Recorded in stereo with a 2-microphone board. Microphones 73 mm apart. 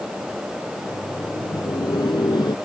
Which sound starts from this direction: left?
Laughter, at 0.8 s.